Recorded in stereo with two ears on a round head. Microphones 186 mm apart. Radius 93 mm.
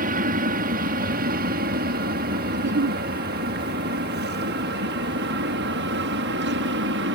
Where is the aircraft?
45° right (ahead or behind); by 7.2 s 60° right (ahead or behind).